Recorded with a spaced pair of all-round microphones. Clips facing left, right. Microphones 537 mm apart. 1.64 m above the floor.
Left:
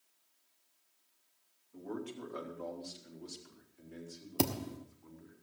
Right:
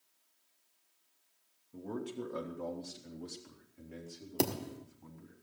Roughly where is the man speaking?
Right.